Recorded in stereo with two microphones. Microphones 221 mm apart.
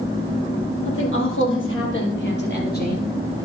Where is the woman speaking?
65° left (ahead or behind), 3.5 m; by 3.1 s 40° left (ahead or behind), 3 m.